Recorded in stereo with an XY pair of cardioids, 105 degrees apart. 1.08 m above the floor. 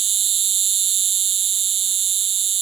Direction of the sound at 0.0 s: 55° right.